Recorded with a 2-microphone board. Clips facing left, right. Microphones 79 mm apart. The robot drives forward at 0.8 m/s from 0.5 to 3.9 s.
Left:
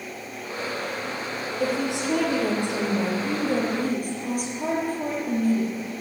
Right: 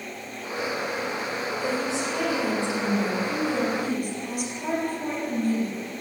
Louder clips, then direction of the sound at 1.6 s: Left 4 dB; 65° left (ahead or behind).